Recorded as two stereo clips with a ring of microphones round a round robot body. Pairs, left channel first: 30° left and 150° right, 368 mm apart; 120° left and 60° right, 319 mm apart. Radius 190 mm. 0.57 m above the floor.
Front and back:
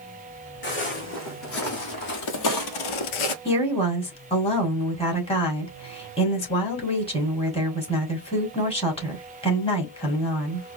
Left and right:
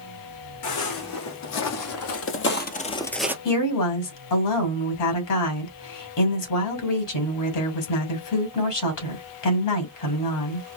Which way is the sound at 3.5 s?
105° left.